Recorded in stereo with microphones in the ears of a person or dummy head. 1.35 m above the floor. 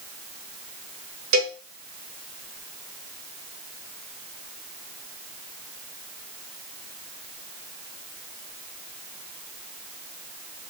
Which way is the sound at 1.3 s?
70° right (ahead or behind).